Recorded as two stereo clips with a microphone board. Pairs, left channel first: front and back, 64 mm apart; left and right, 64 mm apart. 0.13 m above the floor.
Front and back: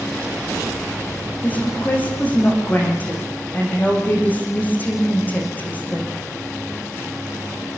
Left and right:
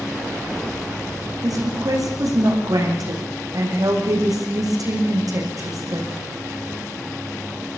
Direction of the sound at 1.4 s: 65° right.